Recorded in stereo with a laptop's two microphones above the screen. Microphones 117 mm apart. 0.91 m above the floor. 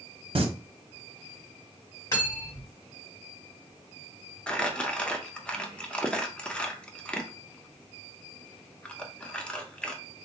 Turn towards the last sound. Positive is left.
turn(degrees=10)  # may be behind; listen again after turning